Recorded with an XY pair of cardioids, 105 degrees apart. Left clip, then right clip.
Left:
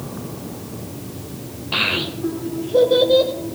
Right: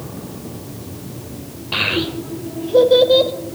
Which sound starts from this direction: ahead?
A child speaking, at 1.7 s.